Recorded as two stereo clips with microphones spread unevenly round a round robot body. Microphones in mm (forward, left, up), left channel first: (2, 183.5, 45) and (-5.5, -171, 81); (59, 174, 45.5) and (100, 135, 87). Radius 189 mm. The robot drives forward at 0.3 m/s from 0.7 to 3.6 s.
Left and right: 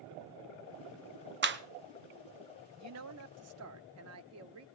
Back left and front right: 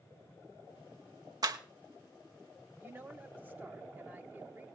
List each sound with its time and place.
1.4 s a clap: 65° right, 1.0 m; by 1.6 s 70° right, 1.0 m
2.8 s a woman speaking: 125° right, 1.0 m; by 4.7 s 140° right, 1.1 m